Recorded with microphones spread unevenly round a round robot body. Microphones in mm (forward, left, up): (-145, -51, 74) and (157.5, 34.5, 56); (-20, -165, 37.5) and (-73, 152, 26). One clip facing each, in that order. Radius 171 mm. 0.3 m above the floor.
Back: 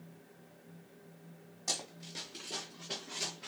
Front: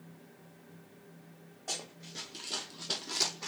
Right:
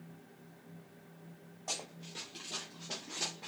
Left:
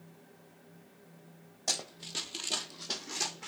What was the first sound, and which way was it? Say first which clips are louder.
Running footsteps: even, left 3 dB; 145° left.